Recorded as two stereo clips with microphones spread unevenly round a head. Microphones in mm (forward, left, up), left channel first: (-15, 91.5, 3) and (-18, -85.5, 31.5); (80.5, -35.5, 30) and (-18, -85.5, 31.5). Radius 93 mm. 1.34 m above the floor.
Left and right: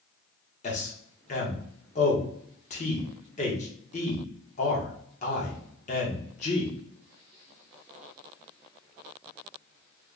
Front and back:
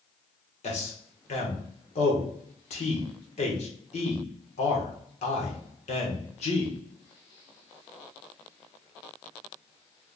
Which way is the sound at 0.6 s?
45° left.